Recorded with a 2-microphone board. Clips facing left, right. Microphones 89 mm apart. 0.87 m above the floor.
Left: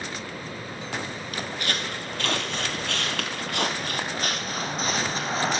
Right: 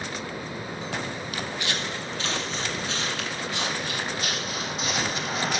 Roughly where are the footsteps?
Left.